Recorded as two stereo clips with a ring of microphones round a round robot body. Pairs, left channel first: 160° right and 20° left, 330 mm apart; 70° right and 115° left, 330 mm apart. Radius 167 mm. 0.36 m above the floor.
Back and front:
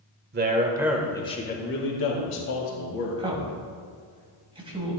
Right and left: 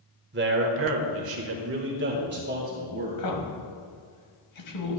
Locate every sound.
0.3 s a man speaking: 70° left, 1.1 m; by 3.2 s 175° left, 2.5 m
3.2 s a man speaking: 50° right, 2 m